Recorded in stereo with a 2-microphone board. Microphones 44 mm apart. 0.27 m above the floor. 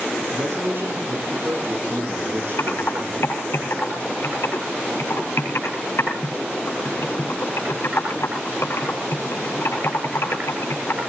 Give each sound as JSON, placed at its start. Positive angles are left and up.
{"t": 0.3, "sound": "a man speaking", "side_deg": -65, "distance_m": 9.5}
{"t": 2.6, "sound": "typing on a keyboard", "side_deg": 65, "distance_m": 5.5}